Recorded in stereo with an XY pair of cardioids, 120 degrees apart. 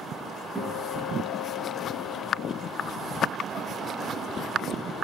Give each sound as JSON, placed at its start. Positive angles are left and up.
{"t": 0.6, "sound": "a guitar", "azimuth_deg": -10, "distance_m": 6.5}